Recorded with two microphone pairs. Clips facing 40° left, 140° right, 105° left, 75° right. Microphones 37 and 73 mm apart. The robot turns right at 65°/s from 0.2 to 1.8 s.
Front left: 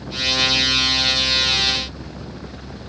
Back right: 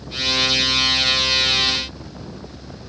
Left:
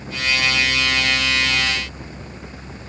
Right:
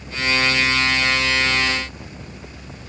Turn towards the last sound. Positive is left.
No sound to turn to.